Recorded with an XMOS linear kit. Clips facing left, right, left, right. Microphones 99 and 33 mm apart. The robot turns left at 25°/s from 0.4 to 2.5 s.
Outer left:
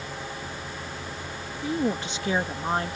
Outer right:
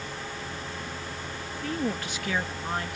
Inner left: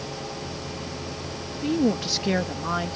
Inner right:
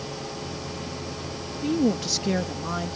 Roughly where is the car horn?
I don't hear a car horn.